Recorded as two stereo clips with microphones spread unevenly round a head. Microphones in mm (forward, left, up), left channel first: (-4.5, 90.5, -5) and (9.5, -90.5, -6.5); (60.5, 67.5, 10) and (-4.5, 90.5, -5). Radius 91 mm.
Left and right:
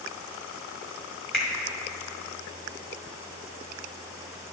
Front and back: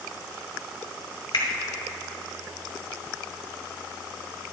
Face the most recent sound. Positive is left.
turn(degrees=5)